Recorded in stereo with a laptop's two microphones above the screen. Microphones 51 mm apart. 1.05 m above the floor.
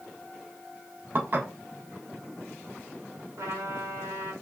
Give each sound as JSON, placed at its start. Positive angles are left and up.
{"t": 1.1, "sound": "dishes clattering", "side_deg": -40, "distance_m": 1.3}
{"t": 3.4, "sound": "a trumpet", "side_deg": -75, "distance_m": 1.7}